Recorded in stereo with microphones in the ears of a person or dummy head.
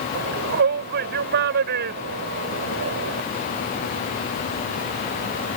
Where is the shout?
50° right (ahead or behind).